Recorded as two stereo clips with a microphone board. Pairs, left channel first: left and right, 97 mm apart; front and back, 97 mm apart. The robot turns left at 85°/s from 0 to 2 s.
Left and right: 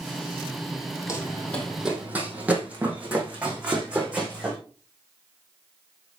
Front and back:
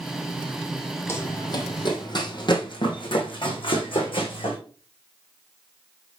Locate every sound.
1.1 s running footsteps: 50° left, 2 m; by 4.6 s 10° right, 4 m